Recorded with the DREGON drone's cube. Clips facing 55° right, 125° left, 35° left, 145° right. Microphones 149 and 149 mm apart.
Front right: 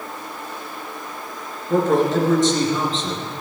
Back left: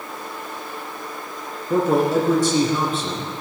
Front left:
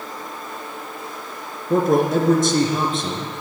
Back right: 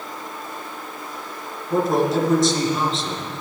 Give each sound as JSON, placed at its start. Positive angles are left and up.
{"t": 1.7, "sound": "a man speaking", "azimuth_deg": 45, "distance_m": 2.5}